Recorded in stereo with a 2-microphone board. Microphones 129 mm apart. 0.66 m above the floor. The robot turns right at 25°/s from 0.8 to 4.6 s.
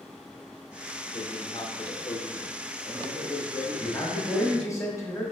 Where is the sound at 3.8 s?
20° left (ahead or behind), 0.8 m.